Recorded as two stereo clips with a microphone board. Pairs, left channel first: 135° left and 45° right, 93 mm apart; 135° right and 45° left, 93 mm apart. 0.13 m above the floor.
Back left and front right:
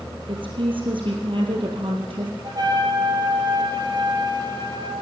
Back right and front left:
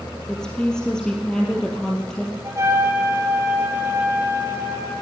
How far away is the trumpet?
About 3.5 m.